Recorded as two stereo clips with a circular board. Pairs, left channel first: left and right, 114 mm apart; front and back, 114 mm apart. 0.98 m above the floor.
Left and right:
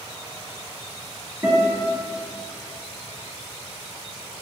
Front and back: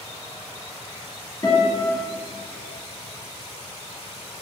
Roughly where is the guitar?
Ahead.